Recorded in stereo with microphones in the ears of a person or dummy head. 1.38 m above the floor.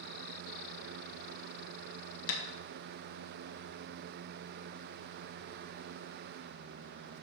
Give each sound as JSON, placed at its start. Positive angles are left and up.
{"t": 2.3, "sound": "tapping", "side_deg": 80, "distance_m": 1.9}